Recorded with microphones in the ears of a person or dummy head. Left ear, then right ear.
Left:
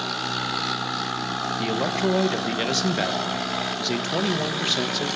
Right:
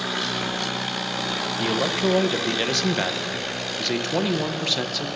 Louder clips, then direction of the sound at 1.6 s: Right 2 dB; centre (ahead or behind).